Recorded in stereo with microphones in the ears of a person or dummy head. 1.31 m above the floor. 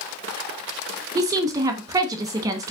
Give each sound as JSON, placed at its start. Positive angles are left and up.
{"t": 1.1, "sound": "a woman speaking", "side_deg": -20, "distance_m": 0.9}